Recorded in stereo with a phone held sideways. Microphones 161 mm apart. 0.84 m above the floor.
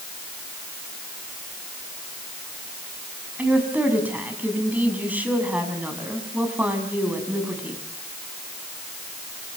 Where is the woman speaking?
10° right (ahead or behind), 6.5 m.